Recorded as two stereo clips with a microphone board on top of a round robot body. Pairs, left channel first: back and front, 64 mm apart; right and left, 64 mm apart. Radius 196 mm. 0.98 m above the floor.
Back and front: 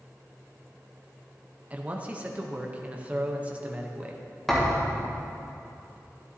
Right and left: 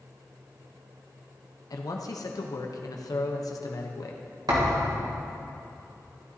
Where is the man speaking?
70° right, 0.9 m.